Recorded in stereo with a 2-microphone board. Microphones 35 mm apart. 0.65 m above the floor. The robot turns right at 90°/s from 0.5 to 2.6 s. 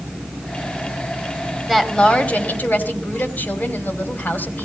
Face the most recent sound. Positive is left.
turn(degrees=90)